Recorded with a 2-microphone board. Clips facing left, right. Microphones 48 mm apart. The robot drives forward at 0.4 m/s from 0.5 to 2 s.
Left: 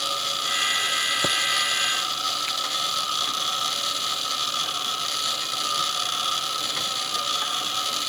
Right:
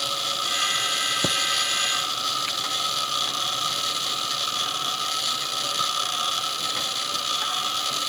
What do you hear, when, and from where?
1.2 s a thud: 5° left (ahead or behind)